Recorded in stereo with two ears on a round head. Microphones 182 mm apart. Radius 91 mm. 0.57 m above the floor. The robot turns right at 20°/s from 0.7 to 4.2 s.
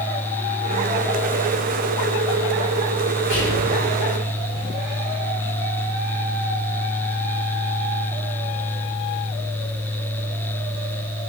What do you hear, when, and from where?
3.3 s whispering: 65° left (ahead or behind), 1.5 m; by 3.7 s 70° left (ahead or behind), 1.5 m